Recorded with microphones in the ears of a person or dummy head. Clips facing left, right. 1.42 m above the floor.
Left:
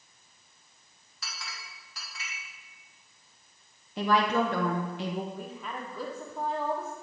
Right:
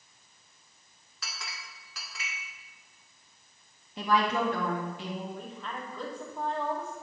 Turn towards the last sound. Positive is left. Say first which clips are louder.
# left 1 dB
turn(degrees=5)  # may be behind; listen again after turning